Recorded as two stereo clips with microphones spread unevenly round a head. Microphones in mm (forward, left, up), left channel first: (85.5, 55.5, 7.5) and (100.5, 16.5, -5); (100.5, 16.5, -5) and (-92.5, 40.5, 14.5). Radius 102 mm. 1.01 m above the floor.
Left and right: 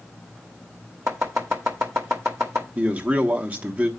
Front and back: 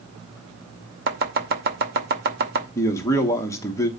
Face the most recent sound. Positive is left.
turn(degrees=-75)